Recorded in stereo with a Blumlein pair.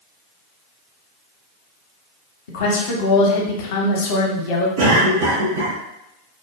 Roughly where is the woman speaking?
Ahead left.